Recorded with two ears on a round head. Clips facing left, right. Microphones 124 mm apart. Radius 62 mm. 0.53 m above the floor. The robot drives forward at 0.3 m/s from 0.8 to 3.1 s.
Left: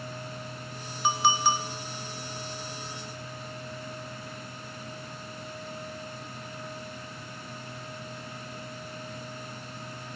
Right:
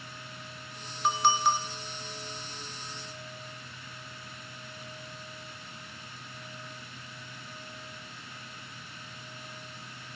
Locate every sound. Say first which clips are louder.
1.0 s a clink: left 1 dB; 5° left (ahead or behind), 0.6 m